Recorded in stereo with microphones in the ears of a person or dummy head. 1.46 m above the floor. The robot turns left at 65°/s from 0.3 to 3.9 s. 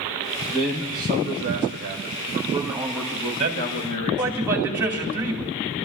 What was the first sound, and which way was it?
A man speaking, 20° right.